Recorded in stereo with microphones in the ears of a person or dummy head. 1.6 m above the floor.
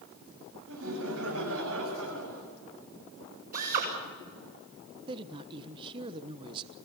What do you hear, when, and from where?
0.7 s laughter: 80° right, 8.5 m
3.5 s a drill: 50° right (ahead or behind), 6 m
5.1 s a woman speaking: 30° right (ahead or behind), 1.3 m